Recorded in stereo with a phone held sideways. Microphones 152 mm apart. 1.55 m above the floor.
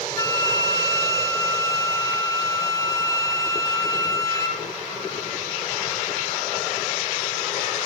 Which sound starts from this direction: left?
A flute, at 0.2 s.